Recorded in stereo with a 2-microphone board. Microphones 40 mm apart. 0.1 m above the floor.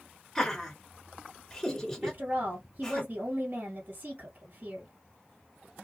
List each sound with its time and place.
0.3 s laughter: 10° left (ahead or behind), 1.1 m
2.0 s a woman speaking: 40° right (ahead or behind), 2 m